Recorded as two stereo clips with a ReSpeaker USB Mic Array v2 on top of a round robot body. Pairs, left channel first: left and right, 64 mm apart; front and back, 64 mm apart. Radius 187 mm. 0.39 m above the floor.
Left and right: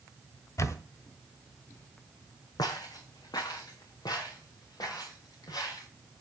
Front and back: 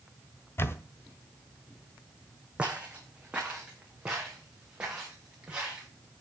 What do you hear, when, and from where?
0.6 s a camera shutter: 50° left, 1.4 m
2.6 s footsteps: 105° left, 1.7 m; by 5.9 s 110° left, 5.5 m